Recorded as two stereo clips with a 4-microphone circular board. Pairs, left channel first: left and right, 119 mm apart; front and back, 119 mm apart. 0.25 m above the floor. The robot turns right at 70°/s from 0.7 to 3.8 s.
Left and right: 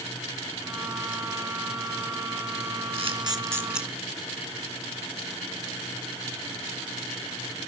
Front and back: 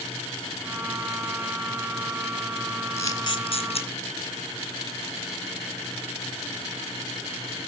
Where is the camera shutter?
65° right, 2 m; by 3.9 s 5° right, 2 m.